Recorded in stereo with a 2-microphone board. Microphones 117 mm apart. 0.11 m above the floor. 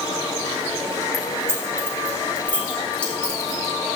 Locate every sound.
1.1 s keys jangling: 25° left (ahead or behind), 5 m; by 3.6 s 5° left (ahead or behind), 4.5 m